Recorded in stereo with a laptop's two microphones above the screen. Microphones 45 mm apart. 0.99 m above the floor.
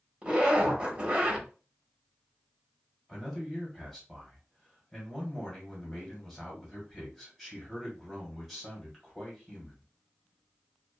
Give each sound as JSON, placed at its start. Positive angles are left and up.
{"t": 0.2, "sound": "a zipper", "side_deg": -30, "distance_m": 1.3}
{"t": 3.1, "sound": "a man speaking", "side_deg": 0, "distance_m": 1.3}